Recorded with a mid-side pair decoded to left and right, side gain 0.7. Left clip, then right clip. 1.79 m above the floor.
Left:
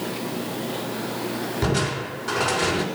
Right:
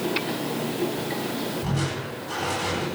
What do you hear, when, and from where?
1.6 s crushing: 70° left, 6.5 m